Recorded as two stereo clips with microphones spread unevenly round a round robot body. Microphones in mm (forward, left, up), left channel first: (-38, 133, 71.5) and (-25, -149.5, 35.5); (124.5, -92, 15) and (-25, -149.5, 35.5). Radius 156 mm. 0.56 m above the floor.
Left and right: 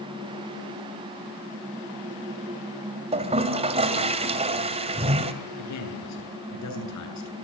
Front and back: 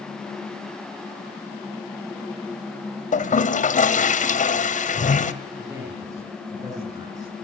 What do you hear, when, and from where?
3.1 s a toilet flushing: 15° right, 1.9 m
5.6 s a man speaking: 120° left, 9.5 m